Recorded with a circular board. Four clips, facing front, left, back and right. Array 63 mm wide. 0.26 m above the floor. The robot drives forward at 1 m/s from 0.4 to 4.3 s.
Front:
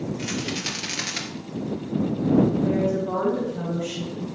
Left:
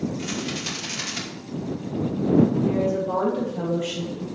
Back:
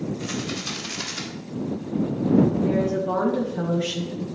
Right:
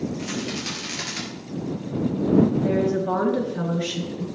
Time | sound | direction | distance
0.2 | a rattle | 10° right | 3.5 m
2.6 | a woman speaking | 95° right | 3.5 m